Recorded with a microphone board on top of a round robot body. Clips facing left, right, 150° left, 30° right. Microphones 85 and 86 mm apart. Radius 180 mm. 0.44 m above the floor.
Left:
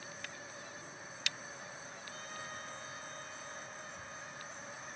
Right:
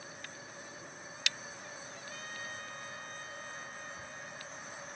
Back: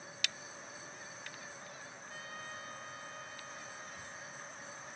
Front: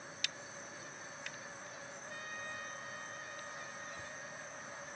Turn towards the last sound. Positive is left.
turn(degrees=-80)